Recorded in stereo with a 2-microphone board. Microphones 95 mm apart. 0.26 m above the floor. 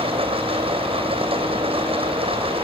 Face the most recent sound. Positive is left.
turn(degrees=-75)  # may be behind; listen again after turning